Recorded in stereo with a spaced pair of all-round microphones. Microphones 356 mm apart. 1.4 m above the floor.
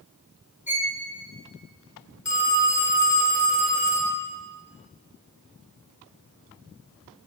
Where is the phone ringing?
50° left (ahead or behind), 1.1 m.